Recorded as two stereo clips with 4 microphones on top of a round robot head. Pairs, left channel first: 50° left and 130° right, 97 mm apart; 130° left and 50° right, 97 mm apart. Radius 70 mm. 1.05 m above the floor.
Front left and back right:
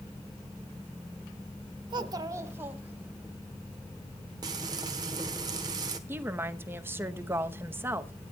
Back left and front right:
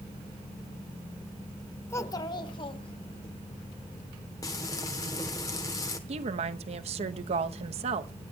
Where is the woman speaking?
60° right, 0.9 m.